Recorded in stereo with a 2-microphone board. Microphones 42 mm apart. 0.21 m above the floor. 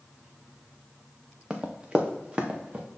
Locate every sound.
1.5 s running footsteps: 20° right (ahead or behind), 1.2 m; by 2.9 s 30° right (ahead or behind), 1.9 m